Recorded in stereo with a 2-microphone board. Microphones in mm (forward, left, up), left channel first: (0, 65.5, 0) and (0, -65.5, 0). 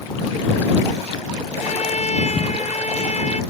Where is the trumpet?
60° left (ahead or behind).